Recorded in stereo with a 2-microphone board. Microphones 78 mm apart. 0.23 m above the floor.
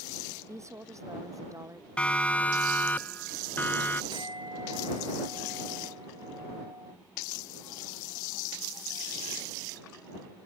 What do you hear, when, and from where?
0.5 s a woman speaking: 40° right (ahead or behind); by 1.9 s 45° right (ahead or behind)
2.0 s a siren: 15° left (ahead or behind); by 4.0 s 25° left (ahead or behind)
4.1 s a clink: 85° right